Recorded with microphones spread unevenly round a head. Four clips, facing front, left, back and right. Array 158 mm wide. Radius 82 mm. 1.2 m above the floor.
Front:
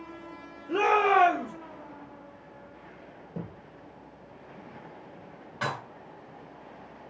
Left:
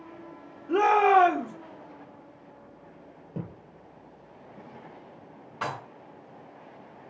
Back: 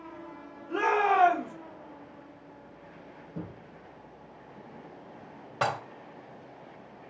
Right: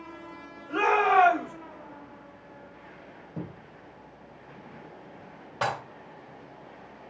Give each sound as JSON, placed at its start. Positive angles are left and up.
{"t": 0.7, "sound": "a shout", "azimuth_deg": 80, "distance_m": 3.5}
{"t": 3.3, "sound": "a thud", "azimuth_deg": 75, "distance_m": 3.5}
{"t": 5.6, "sound": "dishes clattering", "azimuth_deg": -175, "distance_m": 2.0}